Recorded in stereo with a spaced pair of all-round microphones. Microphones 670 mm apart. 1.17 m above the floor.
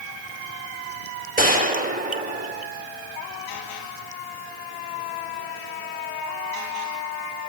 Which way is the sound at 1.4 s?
10° right (ahead or behind).